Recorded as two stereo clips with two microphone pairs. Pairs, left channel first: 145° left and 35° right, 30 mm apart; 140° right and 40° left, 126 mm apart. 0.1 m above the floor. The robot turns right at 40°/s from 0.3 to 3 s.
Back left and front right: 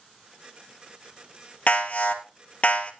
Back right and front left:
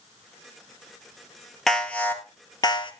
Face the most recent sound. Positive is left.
turn(degrees=-175)